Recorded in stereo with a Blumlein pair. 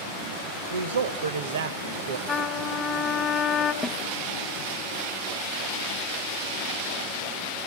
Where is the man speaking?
65° right, 0.9 m.